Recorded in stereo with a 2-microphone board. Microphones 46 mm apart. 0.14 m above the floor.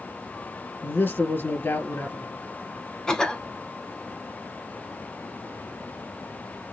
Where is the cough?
15° left (ahead or behind), 1.2 m.